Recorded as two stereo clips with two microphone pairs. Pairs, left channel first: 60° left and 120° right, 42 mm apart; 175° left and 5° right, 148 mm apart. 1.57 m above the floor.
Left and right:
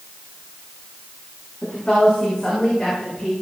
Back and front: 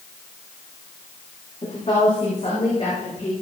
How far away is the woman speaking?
About 6.5 m.